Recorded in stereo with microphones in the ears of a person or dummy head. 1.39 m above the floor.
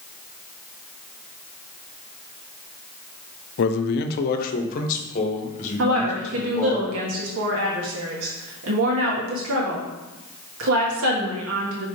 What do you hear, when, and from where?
3.6 s a man speaking: 65° left (ahead or behind), 0.5 m; by 6.8 s 40° left (ahead or behind), 2 m
5.8 s a woman speaking: 85° right, 1.8 m